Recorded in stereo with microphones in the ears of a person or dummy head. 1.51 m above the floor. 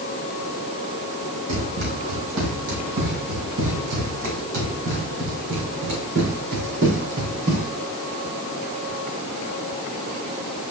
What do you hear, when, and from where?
1.5 s running footsteps: 65° right (ahead or behind), 3.5 m